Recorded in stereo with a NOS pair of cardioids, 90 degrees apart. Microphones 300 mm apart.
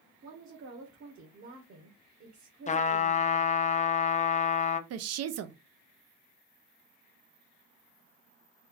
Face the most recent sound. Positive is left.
turn(degrees=-60)